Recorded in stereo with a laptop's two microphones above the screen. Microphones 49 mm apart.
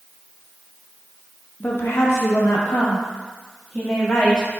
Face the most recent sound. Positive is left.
turn(degrees=50)  # may be behind; listen again after turning